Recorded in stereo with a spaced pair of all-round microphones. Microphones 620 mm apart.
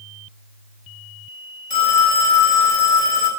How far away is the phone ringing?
About 3.5 m.